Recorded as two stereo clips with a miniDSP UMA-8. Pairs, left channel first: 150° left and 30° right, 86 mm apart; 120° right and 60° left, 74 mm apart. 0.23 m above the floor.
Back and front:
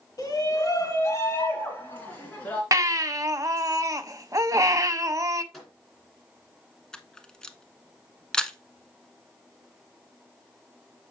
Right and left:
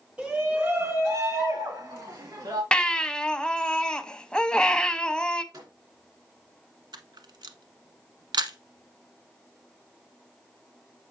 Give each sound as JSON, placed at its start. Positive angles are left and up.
{"t": 0.2, "sound": "a shout", "azimuth_deg": 130, "distance_m": 1.9}
{"t": 2.7, "sound": "a baby crying", "azimuth_deg": -50, "distance_m": 0.5}
{"t": 5.5, "sound": "a microwave", "azimuth_deg": 60, "distance_m": 3.0}
{"t": 6.9, "sound": "a camera shutter", "azimuth_deg": 70, "distance_m": 0.7}